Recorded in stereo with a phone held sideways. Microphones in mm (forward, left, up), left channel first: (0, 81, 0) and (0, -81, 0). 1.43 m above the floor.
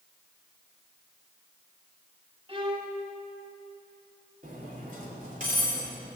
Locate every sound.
2.5 s a violin: 35° right (ahead or behind), 1.2 m
4.4 s cutlery clinking: 55° right (ahead or behind), 3 m